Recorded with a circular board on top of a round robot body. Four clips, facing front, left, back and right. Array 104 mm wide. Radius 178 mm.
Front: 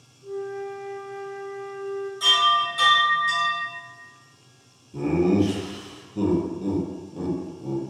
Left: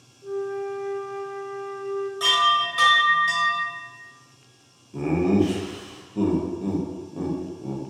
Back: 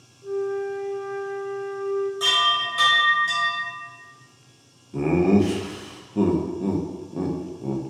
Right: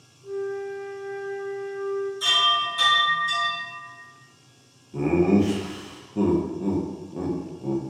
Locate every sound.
0.2 s a flute: 130° left, 0.7 m
2.2 s a chime: 105° left, 1.4 m
4.9 s laughter: 170° right, 0.7 m